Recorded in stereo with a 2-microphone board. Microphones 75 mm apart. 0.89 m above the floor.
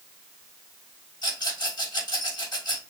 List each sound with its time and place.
1.2 s a rattle: 65° left (ahead or behind), 4 m